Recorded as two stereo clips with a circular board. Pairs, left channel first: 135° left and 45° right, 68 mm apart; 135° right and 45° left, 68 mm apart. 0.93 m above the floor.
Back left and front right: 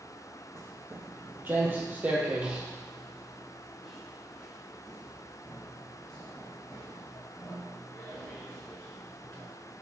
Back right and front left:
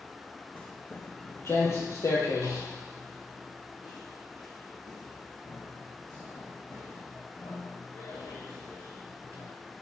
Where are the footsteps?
75° right, 1.4 m; by 9.4 s 155° right, 5 m.